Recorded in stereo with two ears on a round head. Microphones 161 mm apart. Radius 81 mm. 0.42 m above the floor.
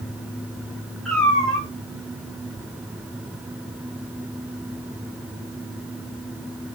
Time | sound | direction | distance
1.1 | a cat meowing | 5° left (ahead or behind) | 9 m